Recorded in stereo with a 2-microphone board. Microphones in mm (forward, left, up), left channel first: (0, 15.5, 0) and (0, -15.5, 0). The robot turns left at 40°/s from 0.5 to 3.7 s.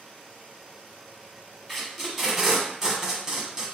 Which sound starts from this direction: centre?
Tape being pulled, at 1.7 s.